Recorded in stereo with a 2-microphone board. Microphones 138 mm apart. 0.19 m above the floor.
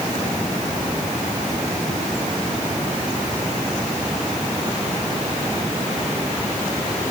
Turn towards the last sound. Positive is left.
No sound to turn to.